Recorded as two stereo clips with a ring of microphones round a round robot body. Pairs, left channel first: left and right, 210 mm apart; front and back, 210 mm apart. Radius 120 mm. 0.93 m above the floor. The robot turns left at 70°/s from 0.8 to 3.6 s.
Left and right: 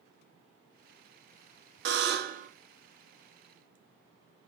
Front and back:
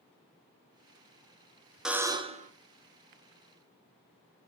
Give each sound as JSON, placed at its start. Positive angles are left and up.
{"t": 1.9, "sound": "a buzzer", "azimuth_deg": -95, "distance_m": 1.3}